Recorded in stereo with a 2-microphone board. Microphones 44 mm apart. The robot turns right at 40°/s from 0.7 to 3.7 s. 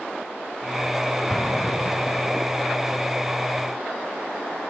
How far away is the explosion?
About 5 m.